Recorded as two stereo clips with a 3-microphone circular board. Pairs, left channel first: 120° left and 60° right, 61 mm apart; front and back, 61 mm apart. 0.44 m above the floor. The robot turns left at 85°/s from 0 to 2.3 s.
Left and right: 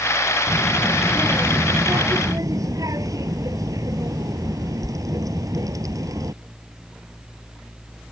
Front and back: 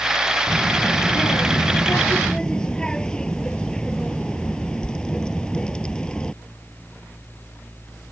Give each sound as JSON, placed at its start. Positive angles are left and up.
{"t": 0.5, "sound": "a child speaking", "azimuth_deg": 80}